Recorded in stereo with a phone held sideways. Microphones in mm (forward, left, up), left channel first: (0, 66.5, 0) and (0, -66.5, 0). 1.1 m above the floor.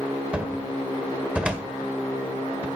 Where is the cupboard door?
10° right (ahead or behind), 1.7 m.